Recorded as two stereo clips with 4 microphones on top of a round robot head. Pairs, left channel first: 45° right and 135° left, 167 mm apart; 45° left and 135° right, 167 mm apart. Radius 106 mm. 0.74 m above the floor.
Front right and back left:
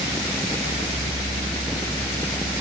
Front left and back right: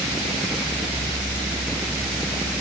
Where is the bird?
I don't hear a bird.